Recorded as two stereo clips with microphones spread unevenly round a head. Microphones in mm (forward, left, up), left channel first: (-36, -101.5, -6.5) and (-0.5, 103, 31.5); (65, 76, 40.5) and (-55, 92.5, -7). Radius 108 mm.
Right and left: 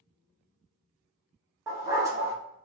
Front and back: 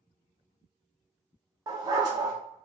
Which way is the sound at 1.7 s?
105° left.